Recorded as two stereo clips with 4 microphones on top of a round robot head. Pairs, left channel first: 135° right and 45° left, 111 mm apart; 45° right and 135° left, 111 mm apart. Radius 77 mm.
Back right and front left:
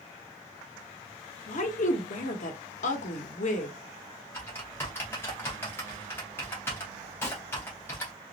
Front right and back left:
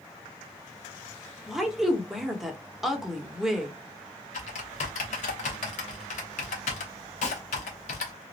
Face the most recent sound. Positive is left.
turn(degrees=-65)